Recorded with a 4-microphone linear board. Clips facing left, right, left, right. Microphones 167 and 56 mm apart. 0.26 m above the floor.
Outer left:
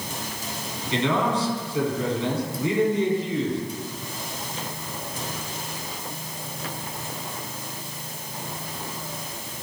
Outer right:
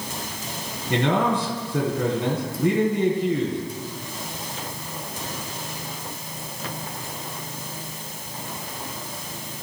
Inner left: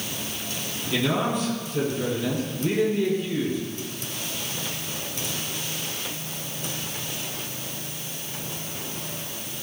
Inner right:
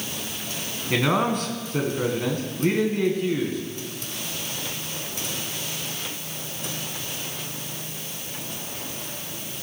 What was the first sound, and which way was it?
A man speaking, 60° right (ahead or behind).